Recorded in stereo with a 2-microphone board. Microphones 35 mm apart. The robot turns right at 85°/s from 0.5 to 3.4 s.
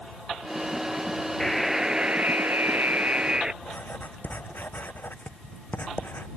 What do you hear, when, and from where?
1.4 s a buzzer: 165° left; by 3.5 s 25° right
3.6 s writing: 65° left (ahead or behind)